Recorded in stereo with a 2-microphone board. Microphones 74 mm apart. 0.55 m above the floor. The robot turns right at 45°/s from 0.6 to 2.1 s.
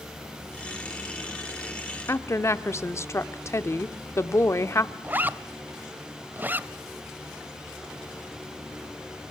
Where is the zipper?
25° right (ahead or behind), 0.7 m.